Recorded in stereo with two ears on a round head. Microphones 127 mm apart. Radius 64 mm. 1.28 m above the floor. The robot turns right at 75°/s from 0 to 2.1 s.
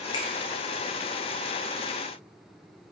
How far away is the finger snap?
About 0.7 m.